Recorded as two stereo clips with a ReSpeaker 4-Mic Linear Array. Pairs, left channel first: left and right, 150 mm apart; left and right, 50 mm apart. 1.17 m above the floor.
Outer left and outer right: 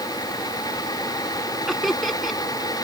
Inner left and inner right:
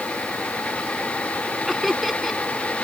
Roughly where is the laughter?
Centre.